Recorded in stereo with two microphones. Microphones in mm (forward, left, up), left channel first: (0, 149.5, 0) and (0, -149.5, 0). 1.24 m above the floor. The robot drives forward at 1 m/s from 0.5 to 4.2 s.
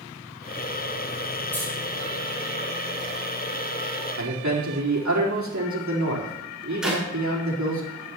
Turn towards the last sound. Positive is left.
turn(degrees=0)  # may be behind; listen again after turning